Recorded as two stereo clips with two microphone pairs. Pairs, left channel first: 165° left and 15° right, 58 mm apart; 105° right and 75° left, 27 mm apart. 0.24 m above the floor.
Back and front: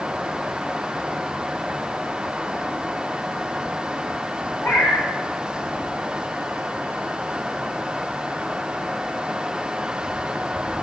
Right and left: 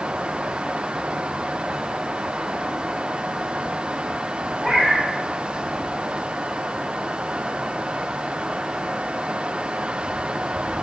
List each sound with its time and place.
4.6 s a cat meowing: 160° left, 1.0 m